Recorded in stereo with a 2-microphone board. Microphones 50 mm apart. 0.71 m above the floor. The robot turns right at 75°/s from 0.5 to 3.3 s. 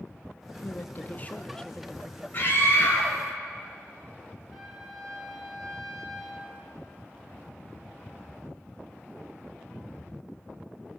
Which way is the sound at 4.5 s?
5° left (ahead or behind).